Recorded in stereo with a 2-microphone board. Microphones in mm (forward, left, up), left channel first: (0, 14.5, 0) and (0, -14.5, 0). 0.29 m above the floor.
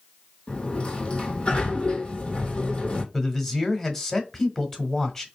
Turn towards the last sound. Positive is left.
turn(degrees=15)  # may be behind; listen again after turning